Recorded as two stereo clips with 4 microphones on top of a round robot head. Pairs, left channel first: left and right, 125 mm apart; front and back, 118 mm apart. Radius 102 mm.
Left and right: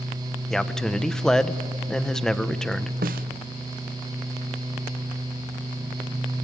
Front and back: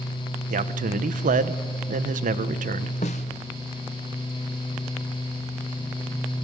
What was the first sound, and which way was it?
A man speaking, 175° left.